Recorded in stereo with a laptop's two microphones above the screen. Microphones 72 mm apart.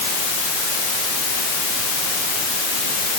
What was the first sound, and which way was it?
Only background noise.